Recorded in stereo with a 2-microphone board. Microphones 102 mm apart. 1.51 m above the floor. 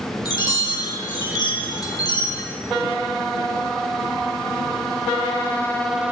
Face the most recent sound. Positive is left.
turn(degrees=40)  # may be behind; listen again after turning